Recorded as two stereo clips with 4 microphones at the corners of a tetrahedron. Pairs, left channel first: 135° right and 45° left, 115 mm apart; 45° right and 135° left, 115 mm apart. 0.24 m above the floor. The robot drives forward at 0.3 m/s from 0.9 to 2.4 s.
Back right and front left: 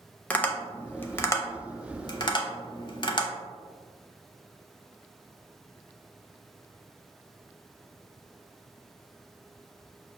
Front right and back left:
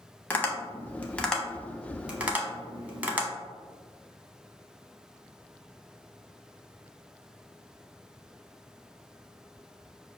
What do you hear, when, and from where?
0.3 s tapping: 85° right, 0.5 m; by 3.3 s 155° right, 0.7 m